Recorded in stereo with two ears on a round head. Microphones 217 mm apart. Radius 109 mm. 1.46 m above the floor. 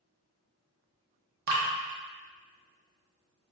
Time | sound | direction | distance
1.5 | dripping | 40° right (ahead or behind) | 0.8 m